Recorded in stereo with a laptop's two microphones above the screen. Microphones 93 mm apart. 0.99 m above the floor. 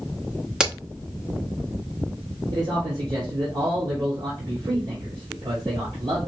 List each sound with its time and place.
0.6 s a crack: 10° right (ahead or behind), 1.2 m
2.5 s a man speaking: 55° right (ahead or behind), 3 m